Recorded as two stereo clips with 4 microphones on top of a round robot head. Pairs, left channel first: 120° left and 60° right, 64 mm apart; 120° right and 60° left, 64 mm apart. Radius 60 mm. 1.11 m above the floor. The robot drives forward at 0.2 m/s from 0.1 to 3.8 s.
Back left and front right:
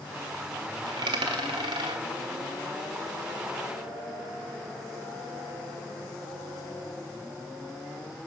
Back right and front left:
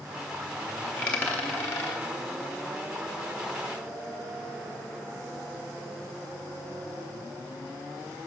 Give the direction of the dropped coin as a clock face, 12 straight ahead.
2 o'clock.